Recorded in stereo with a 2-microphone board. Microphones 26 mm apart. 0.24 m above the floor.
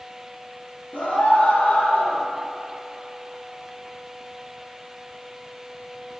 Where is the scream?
75° left (ahead or behind), 3.5 m; by 2.2 s 70° left (ahead or behind), 3 m.